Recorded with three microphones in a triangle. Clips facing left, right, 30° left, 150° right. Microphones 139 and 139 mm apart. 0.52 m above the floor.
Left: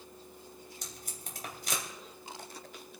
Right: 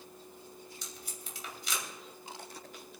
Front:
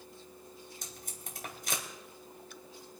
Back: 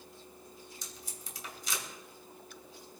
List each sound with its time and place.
0.8 s tape being pulled: 55° left, 2.5 m